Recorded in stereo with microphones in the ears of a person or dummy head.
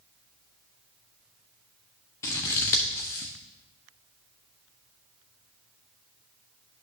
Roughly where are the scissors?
Centre.